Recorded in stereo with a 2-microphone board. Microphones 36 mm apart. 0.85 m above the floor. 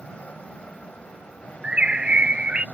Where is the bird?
30° right (ahead or behind).